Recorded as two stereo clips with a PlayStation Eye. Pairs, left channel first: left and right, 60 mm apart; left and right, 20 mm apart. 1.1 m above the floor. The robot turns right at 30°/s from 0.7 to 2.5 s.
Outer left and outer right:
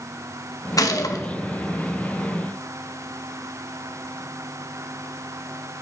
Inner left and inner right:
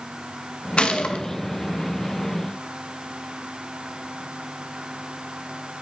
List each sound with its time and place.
0.8 s a gunshot: 70° left (ahead or behind), 1.2 m; by 1.2 s 75° left (ahead or behind), 1.2 m